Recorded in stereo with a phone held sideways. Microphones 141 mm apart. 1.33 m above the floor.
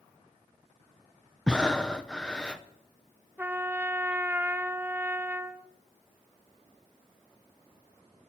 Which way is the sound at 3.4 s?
15° right (ahead or behind).